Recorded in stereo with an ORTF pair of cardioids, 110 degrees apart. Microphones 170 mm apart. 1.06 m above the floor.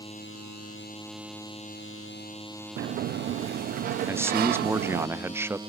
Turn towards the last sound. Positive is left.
turn(degrees=-15)